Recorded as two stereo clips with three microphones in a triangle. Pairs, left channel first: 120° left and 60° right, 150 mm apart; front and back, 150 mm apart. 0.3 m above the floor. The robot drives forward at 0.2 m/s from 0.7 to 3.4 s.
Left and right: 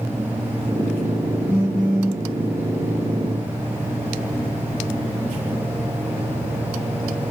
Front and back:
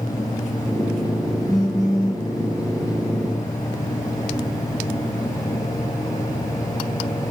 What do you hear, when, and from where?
1.5 s a phone buzzing: 60° right, 1.5 m; by 2.2 s 65° right, 1.5 m